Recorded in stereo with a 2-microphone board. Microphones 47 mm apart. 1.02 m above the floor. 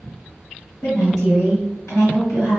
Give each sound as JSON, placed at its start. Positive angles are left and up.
{"t": 0.8, "sound": "a woman speaking", "side_deg": 80, "distance_m": 1.8}